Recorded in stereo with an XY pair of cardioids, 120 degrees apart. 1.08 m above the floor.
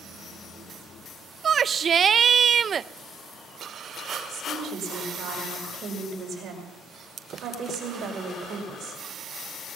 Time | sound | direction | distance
1.4 | a shout | 40° right | 0.5 m
4.3 | a woman speaking | 55° right | 5 m